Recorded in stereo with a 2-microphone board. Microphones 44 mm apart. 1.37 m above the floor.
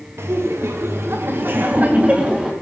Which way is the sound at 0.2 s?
80° right.